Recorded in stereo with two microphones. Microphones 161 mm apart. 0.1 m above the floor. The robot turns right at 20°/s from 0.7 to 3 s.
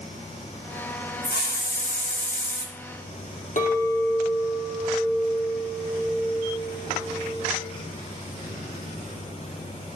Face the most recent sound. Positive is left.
turn(degrees=55)  # may be behind; listen again after turning